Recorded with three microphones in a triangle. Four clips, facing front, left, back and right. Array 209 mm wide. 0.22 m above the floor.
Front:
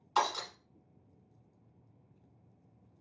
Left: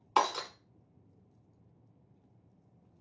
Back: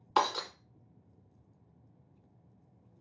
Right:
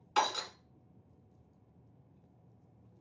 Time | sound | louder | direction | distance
0.2 | breaking glass | left 3 dB, back 2 dB | 155° left | 0.7 m